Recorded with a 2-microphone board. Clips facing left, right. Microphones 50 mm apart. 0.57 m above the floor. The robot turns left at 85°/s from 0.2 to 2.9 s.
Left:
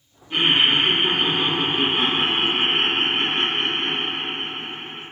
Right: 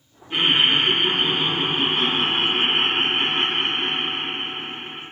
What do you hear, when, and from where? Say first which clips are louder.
0.3 s laughter: even; 10° right (ahead or behind), 0.8 m